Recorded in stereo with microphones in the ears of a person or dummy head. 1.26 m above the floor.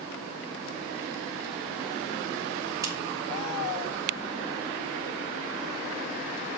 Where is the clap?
20° right (ahead or behind), 1.3 m.